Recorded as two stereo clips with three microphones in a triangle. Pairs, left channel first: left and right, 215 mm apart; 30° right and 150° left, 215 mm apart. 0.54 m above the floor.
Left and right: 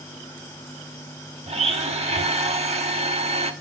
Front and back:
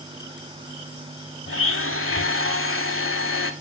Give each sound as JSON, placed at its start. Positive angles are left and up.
{"t": 1.5, "sound": "a blender", "azimuth_deg": -30, "distance_m": 0.9}